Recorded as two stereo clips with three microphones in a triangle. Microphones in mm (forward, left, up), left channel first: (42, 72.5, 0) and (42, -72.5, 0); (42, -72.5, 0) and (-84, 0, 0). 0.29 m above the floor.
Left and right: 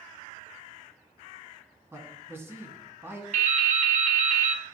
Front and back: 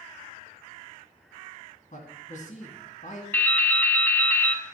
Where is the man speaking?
20° right, 2.0 m.